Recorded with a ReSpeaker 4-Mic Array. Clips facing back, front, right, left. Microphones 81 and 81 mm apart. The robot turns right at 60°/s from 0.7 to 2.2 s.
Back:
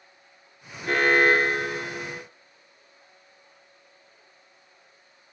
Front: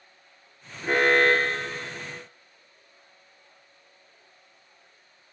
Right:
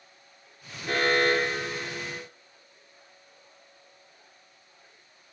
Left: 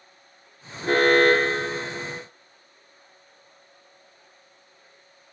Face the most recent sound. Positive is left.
turn(degrees=160)